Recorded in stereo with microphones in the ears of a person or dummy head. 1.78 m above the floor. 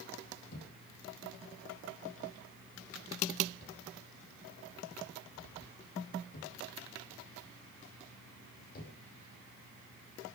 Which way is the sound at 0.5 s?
55° left (ahead or behind).